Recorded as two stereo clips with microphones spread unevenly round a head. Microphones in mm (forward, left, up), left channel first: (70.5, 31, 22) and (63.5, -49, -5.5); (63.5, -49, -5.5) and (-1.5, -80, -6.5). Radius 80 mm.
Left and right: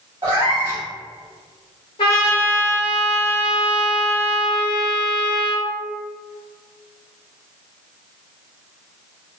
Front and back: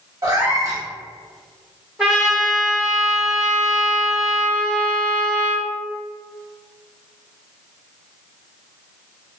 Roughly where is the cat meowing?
Behind.